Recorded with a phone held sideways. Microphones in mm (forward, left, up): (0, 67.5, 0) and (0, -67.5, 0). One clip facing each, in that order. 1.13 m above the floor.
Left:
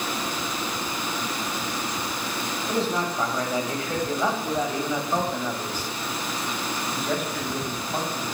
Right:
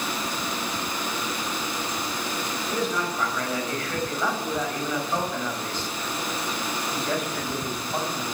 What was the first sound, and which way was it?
A man speaking, 35° left (ahead or behind).